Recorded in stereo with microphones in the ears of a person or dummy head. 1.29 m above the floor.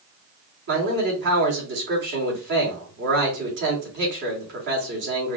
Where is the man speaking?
45° right (ahead or behind), 2 m.